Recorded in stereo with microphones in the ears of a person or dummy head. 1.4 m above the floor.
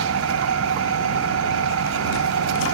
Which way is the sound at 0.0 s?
80° right.